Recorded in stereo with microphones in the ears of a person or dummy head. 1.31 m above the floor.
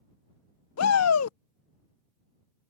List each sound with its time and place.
0.8 s a shout: 85° left